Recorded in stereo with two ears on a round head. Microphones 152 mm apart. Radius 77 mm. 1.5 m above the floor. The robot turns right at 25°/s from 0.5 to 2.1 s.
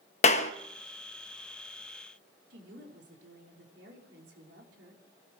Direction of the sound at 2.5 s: 65° right (ahead or behind).